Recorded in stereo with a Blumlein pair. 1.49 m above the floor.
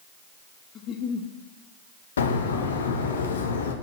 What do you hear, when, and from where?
0.8 s a giggle: 30° left, 0.8 m
2.2 s a bird: 65° left, 0.9 m